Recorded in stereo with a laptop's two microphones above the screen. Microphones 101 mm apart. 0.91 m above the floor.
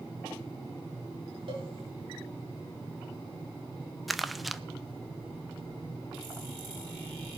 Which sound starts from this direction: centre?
Crumpling, at 4.1 s.